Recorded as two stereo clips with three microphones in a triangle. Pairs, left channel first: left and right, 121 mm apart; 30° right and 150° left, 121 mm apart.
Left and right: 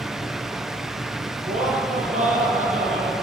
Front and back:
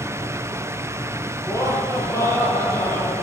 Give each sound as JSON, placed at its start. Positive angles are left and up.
{"t": 1.4, "sound": "laughter", "azimuth_deg": -95, "distance_m": 9.0}